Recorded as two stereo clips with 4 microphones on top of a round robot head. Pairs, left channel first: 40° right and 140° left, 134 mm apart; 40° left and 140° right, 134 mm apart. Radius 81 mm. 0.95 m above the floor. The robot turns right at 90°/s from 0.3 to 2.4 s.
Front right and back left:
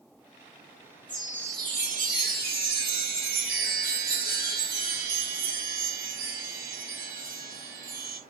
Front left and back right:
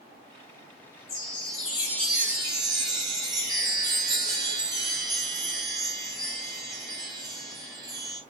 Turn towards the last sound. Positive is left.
turn(degrees=155)